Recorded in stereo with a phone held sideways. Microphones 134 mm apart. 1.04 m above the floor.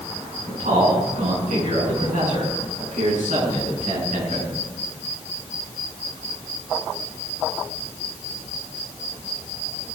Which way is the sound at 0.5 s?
75° right (ahead or behind).